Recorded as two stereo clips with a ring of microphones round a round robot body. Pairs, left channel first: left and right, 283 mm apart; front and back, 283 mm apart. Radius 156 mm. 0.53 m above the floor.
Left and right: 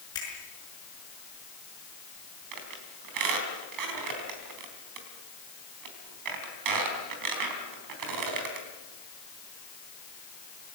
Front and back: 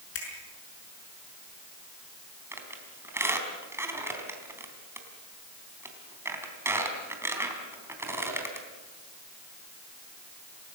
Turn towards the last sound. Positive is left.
turn(degrees=-100)